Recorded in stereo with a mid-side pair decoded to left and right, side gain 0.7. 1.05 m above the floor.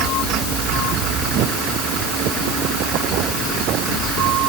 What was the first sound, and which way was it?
Only background noise.